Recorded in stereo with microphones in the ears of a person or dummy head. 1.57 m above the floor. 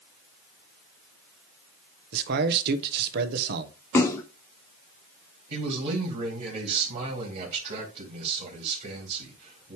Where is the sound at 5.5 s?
45° right (ahead or behind), 3 m.